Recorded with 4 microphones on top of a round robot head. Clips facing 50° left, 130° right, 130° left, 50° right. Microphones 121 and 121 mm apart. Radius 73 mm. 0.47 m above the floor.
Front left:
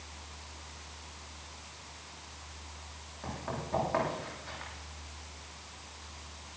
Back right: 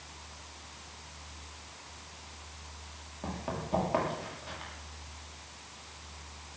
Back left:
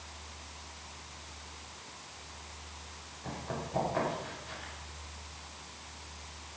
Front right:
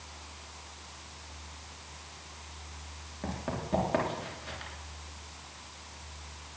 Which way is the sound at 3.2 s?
60° right.